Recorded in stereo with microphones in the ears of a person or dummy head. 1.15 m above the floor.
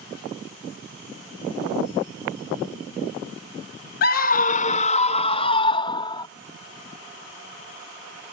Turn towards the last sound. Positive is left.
turn(degrees=25)  # may be behind; listen again after turning